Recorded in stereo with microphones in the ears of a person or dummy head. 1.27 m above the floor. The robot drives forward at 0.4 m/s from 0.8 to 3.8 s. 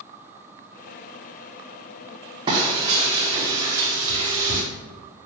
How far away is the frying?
About 2.5 m.